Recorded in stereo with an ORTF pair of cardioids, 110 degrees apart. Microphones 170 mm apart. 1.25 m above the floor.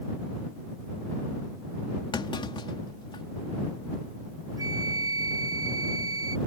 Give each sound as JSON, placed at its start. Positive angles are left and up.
{"t": 2.1, "sound": "a clunk", "azimuth_deg": 30}
{"t": 4.6, "sound": "a flute", "azimuth_deg": -20}